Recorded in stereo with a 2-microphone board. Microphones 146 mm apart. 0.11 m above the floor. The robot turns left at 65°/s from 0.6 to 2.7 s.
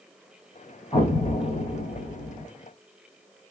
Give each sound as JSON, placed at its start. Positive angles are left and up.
{"t": 0.9, "sound": "an explosion", "azimuth_deg": 145, "distance_m": 3.0}